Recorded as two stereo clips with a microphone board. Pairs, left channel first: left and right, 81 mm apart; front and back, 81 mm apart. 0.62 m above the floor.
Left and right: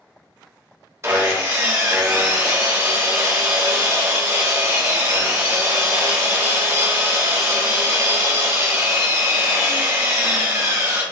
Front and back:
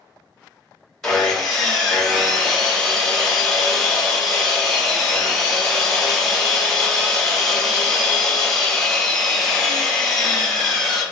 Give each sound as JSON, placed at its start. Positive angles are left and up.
{"t": 1.0, "sound": "sawing", "azimuth_deg": -85, "distance_m": 1.1}